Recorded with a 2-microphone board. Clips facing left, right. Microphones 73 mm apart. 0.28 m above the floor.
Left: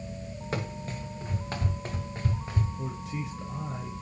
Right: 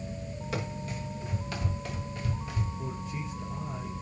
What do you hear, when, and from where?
0.5 s running footsteps: 40° left (ahead or behind), 6 m; by 2.7 s 35° left (ahead or behind), 3.5 m
2.8 s a man speaking: 65° left (ahead or behind), 4 m